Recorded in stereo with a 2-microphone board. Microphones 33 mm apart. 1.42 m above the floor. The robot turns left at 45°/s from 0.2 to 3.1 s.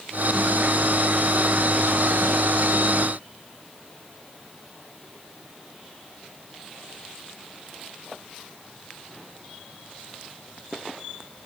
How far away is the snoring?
I don't hear snoring.